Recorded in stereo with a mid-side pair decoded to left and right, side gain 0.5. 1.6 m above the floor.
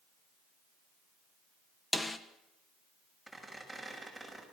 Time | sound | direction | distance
1.9 | a snare drum | 20° left | 1.5 m
3.3 | a squeak | straight ahead | 6.5 m